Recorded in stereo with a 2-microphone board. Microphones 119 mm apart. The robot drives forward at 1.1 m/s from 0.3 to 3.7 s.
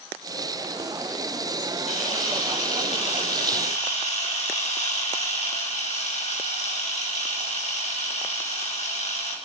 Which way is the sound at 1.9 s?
75° left (ahead or behind).